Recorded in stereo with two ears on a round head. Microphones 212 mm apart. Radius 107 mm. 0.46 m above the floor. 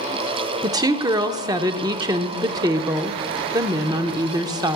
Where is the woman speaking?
15° right (ahead or behind), 0.7 m.